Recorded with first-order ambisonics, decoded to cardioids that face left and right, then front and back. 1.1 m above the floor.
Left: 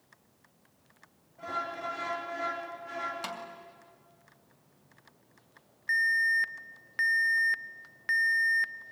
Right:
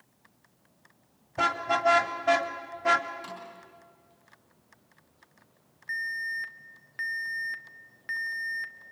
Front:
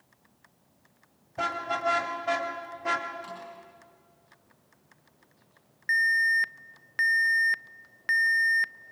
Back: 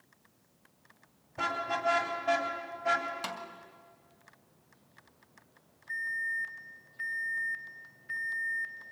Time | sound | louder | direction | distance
1.4 | a car horn | right 9 dB, front 2 dB | 75° right | 3.5 m
3.2 | a snare drum | left 3 dB, back 3 dB | 140° left | 2.5 m
5.9 | an alarm | left 6 dB, front 11 dB | 20° left | 0.6 m